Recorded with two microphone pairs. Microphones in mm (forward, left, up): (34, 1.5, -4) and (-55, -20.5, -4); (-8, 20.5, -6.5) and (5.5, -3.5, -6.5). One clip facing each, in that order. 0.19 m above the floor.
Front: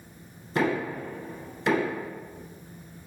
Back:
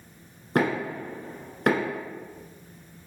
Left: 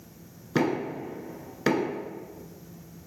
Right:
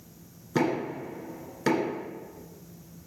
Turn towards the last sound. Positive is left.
turn(degrees=-170)